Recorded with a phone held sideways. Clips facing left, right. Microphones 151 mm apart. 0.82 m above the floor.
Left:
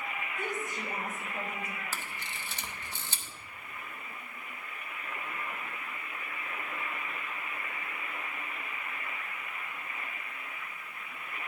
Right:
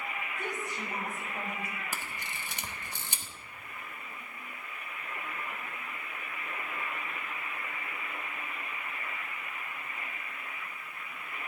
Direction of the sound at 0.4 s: 50° left (ahead or behind).